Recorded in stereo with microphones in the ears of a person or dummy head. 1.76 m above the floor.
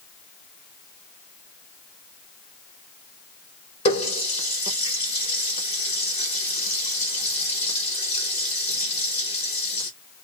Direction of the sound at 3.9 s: 35° left (ahead or behind).